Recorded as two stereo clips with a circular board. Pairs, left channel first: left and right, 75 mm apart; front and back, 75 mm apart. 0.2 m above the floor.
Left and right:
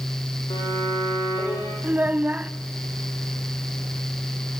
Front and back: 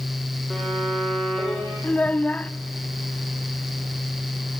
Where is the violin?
85° left, 6 m.